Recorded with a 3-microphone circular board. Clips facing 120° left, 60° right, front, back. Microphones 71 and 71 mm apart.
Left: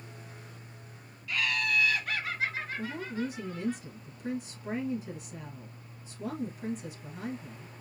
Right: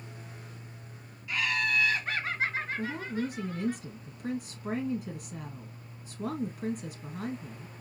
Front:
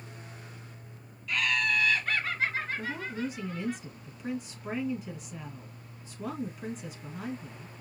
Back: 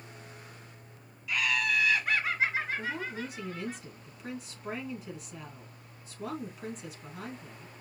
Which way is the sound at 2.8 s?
90° right.